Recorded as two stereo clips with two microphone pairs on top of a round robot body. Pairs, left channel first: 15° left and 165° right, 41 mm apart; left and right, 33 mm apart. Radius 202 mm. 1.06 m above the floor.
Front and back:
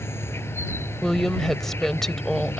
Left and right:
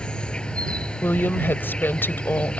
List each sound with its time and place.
0.0 s an insect: 35° left
1.0 s a woman speaking: 100° left